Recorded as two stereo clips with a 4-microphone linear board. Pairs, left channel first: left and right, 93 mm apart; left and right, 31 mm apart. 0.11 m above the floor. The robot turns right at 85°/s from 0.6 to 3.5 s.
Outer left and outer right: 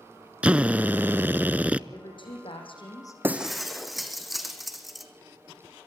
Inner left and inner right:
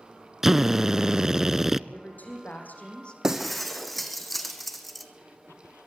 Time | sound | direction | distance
0.4 | a drill | 15° right (ahead or behind) | 0.5 m
1.9 | a woman speaking | 40° left | 6 m
3.2 | breaking glass | 20° right (ahead or behind) | 2 m